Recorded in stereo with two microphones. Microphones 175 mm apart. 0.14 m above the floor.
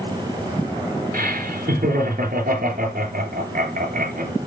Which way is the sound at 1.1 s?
50° right (ahead or behind).